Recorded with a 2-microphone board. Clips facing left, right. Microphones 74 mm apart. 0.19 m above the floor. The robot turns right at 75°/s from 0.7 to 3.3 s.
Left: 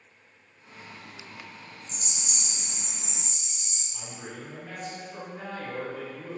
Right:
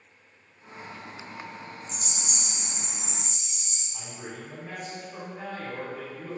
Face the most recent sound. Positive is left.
turn(degrees=-20)  # may be behind; listen again after turning